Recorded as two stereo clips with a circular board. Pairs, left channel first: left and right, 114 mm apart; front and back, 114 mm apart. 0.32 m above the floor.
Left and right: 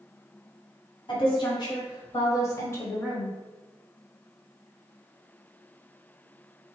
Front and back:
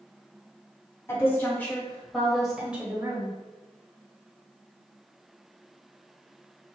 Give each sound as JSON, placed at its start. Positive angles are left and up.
{"t": 1.1, "sound": "a woman speaking", "azimuth_deg": 65, "distance_m": 1.7}